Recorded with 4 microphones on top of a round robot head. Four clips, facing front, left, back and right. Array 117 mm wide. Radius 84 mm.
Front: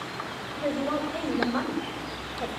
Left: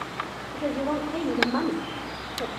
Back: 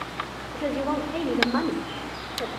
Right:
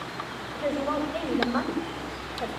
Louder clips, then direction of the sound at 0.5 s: Even, back 2 dB; 155° left.